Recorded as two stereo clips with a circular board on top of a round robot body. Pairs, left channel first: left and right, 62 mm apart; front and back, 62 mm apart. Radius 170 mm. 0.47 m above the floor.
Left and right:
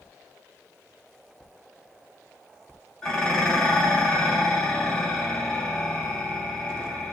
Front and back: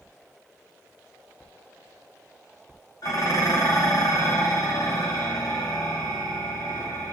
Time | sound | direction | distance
3.0 | dishes clattering | 15° left | 1.2 m